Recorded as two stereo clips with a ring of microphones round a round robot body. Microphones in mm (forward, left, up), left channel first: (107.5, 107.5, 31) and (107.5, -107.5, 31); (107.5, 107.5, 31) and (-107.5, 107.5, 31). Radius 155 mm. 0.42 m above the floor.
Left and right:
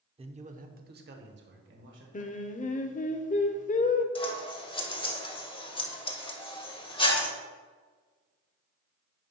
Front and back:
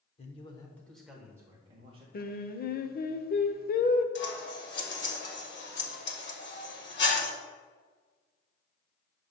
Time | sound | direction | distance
0.2 | a man speaking | 40° right | 0.9 m
2.1 | singing | 40° left | 0.8 m
4.2 | scissors | 25° left | 1.5 m